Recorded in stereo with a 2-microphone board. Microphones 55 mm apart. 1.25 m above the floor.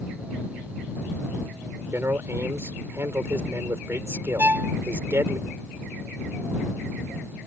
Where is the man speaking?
50° right (ahead or behind).